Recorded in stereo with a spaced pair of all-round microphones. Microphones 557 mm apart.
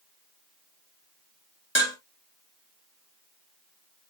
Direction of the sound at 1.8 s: 20° left (ahead or behind).